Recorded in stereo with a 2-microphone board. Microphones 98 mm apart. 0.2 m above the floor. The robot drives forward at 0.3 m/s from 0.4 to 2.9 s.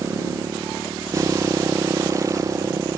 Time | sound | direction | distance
0.0 | a motorcycle | 30° right (ahead or behind) | ?